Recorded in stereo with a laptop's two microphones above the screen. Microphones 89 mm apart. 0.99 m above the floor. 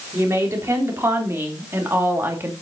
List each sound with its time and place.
0.1 s a woman speaking: 30° right (ahead or behind), 3.5 m; by 2.5 s 25° right (ahead or behind), 2 m